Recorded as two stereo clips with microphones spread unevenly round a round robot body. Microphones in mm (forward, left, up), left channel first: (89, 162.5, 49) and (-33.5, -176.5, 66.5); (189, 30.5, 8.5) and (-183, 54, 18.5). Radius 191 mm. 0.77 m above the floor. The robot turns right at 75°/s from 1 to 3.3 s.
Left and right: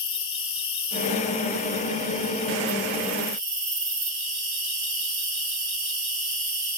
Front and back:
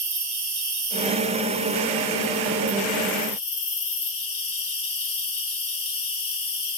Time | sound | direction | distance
0.0 | an insect | 115° left | 1.4 m